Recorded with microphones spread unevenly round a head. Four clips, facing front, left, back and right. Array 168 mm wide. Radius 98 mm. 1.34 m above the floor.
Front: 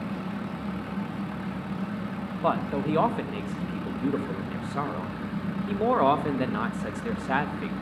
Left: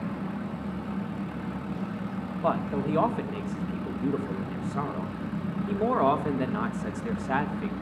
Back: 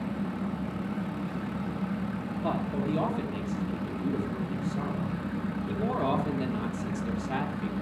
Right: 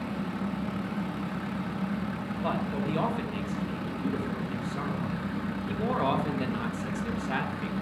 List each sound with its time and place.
2.4 s a man speaking: 10° left, 1.7 m